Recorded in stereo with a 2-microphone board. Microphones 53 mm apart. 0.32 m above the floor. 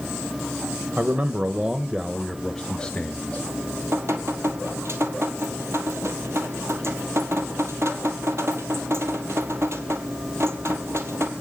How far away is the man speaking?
About 1.2 m.